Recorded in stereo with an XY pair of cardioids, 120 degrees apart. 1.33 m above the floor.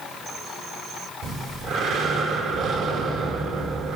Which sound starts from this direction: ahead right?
Breathing, at 1.2 s.